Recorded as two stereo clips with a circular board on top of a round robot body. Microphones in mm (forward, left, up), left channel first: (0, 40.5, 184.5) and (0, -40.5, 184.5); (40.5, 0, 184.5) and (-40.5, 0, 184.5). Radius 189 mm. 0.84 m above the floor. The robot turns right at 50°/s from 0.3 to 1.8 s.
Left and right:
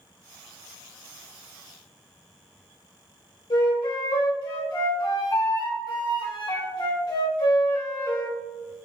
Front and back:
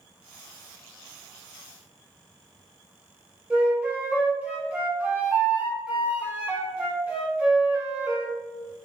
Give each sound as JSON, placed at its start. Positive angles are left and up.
{"t": 3.5, "sound": "a flute", "azimuth_deg": 105, "distance_m": 3.0}